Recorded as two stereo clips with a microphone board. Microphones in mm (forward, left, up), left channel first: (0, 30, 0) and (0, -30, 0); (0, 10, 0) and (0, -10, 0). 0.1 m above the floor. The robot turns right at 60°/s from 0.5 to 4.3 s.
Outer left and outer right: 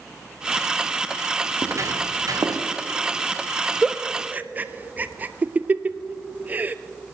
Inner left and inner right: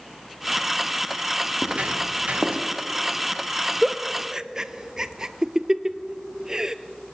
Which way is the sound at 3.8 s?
5° right (ahead or behind).